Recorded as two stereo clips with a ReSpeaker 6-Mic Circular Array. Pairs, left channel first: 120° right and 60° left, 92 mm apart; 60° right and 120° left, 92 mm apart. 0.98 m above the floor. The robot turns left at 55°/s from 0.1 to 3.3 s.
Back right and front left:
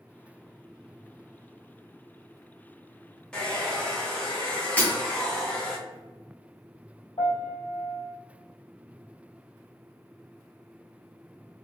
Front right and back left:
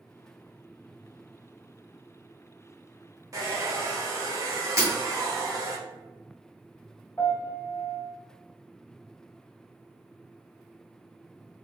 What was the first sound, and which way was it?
A hair dryer, 160° left.